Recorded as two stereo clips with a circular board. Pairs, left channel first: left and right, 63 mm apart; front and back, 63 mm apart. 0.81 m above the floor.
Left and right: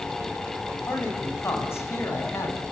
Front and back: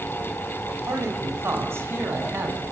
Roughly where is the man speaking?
Behind left.